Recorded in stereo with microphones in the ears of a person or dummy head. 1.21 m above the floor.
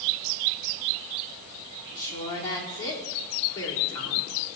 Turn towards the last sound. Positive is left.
turn(degrees=15)  # may be behind; listen again after turning